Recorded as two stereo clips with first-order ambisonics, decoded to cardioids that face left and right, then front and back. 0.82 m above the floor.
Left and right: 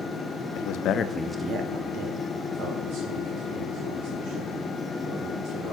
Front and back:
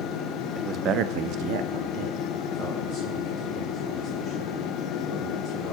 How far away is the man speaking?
About 1.0 m.